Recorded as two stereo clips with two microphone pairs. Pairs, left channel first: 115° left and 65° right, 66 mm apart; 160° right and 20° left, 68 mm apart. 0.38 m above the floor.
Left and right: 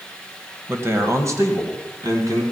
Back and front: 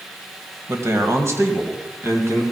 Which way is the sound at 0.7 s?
20° right.